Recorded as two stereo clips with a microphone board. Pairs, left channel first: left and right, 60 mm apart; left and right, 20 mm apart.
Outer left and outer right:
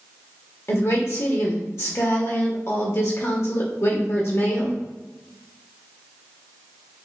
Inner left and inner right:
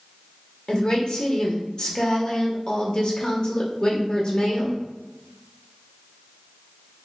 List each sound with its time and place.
0.7 s a woman speaking: 55° left (ahead or behind), 1.1 m